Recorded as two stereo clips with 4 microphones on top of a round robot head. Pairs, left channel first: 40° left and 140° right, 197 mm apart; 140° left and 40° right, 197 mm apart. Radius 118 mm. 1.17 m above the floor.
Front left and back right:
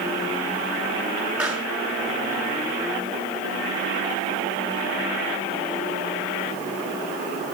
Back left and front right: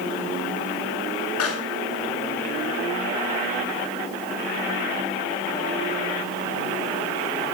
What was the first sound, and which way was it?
A pop, 135° left.